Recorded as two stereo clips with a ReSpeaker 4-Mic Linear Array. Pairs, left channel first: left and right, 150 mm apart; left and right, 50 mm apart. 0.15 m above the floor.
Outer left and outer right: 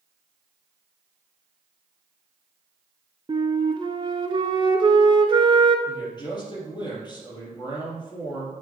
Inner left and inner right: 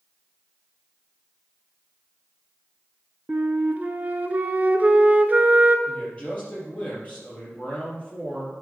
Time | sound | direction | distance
3.3 | a flute | 35° right (ahead or behind) | 0.6 m
5.9 | a man speaking | 30° left (ahead or behind) | 3 m